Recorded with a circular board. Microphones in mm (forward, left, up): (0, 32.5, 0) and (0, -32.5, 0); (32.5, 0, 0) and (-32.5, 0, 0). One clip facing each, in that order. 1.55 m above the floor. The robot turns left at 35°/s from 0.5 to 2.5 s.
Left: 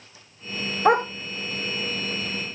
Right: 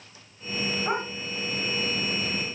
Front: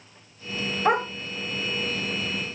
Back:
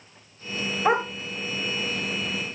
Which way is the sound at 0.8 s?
95° left.